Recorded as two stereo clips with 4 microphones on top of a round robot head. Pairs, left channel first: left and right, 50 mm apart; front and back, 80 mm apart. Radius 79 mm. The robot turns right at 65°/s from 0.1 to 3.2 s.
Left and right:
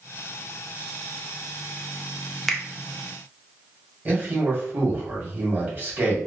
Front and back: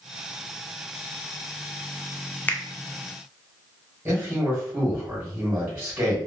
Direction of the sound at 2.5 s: 5° left.